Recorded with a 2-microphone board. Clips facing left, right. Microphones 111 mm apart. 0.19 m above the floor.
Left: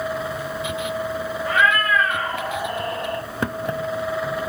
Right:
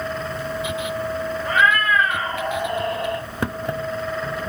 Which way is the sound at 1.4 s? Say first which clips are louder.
Even; 15° right (ahead or behind).